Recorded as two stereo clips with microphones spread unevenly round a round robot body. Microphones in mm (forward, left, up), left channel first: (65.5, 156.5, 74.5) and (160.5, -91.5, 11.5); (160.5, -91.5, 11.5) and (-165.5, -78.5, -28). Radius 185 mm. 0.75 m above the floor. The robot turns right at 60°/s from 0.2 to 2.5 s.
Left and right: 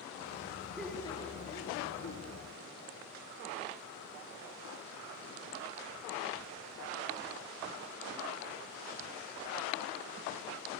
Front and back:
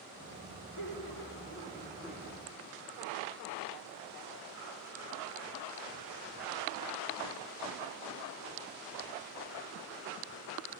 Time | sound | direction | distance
0.8 | laughter | 10° left | 1.5 m